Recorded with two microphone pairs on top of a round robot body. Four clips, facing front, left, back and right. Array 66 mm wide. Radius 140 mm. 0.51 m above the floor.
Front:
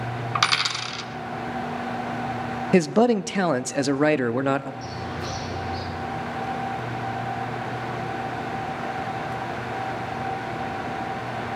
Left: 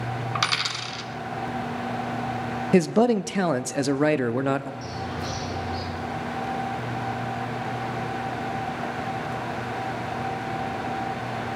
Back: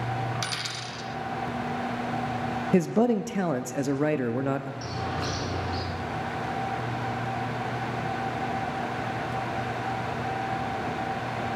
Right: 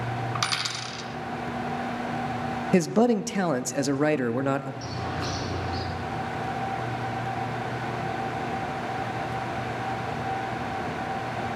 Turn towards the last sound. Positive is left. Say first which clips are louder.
# even, even
turn(degrees=-145)